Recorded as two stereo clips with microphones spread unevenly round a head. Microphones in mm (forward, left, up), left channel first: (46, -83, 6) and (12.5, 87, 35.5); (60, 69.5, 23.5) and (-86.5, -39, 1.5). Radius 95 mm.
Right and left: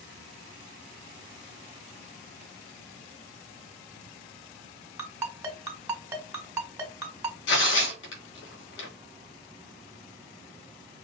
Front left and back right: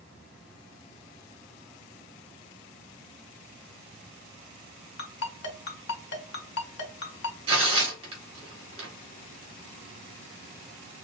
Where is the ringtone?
35° left, 1.9 m.